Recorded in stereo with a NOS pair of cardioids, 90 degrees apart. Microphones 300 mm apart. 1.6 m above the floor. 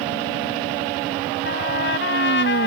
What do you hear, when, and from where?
1.4 s a trumpet: 40° left